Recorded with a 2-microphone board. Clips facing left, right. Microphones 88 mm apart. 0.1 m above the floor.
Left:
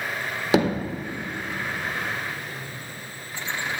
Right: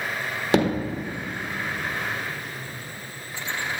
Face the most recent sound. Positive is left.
turn(degrees=0)  # may be behind; listen again after turning